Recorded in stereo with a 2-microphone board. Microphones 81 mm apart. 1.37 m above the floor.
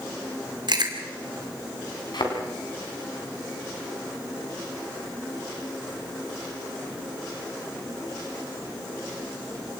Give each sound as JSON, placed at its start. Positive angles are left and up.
{"t": 0.7, "sound": "chewing", "side_deg": -65, "distance_m": 2.5}
{"t": 2.1, "sound": "a thud", "side_deg": 70, "distance_m": 4.0}